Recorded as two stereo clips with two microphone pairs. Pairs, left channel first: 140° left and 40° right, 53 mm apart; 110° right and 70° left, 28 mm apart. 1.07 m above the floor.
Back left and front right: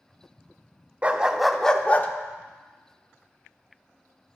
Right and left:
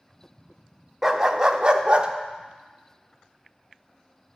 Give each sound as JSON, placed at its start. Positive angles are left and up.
{"t": 1.0, "sound": "a dog barking", "azimuth_deg": 10, "distance_m": 0.8}